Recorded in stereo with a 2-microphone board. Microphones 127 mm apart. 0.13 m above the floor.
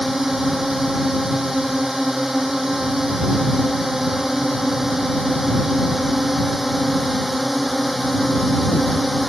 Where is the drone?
Centre (ahead or behind).